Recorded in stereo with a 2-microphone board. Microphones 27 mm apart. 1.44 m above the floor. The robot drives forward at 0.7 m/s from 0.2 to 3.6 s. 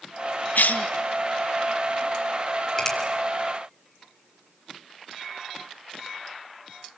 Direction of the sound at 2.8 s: 20° left (ahead or behind).